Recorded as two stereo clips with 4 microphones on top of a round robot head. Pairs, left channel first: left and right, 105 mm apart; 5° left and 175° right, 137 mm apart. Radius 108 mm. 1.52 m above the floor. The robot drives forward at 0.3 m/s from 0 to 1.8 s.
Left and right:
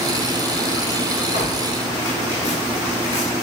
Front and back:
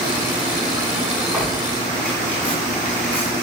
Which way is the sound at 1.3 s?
100° left.